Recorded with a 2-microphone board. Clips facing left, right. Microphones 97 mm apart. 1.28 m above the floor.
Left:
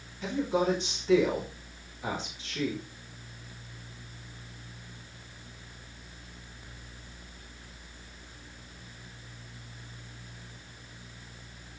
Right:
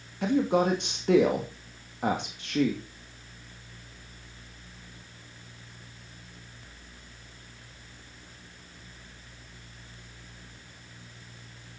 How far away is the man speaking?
About 2 m.